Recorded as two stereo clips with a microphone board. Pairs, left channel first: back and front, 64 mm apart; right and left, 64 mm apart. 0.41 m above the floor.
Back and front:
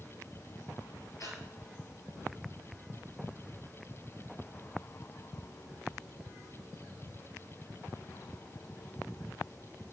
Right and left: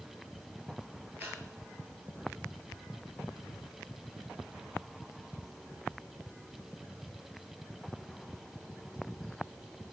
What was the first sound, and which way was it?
Breathing, 150° left.